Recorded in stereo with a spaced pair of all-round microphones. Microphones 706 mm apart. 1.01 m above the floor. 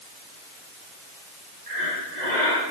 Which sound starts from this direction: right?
Breathing, at 1.7 s.